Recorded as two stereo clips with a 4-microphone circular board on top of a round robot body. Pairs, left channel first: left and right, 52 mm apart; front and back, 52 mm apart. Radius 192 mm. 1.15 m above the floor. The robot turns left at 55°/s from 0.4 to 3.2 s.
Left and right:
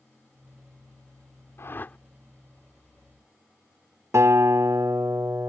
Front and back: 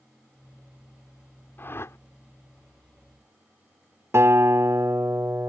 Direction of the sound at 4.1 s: 135° right.